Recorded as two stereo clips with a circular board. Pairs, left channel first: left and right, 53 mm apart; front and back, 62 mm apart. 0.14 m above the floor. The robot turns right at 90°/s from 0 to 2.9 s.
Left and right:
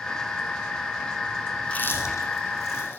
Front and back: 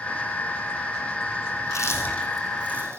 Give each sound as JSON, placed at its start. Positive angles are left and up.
{"t": 1.6, "sound": "chewing", "azimuth_deg": 20, "distance_m": 4.5}